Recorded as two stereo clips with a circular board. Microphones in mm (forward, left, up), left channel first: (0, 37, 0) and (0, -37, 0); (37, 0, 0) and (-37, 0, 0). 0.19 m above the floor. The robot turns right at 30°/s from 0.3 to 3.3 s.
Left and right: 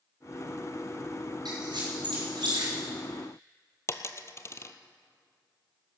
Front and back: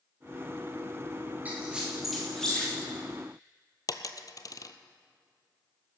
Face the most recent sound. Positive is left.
turn(degrees=40)